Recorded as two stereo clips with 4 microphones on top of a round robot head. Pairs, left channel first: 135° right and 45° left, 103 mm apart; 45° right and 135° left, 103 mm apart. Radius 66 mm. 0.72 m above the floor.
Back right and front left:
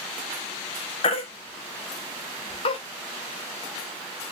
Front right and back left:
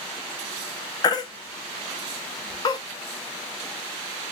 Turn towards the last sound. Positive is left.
turn(degrees=-95)